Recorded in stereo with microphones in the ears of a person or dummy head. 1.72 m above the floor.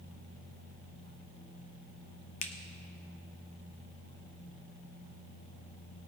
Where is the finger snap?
45° left (ahead or behind), 0.7 m.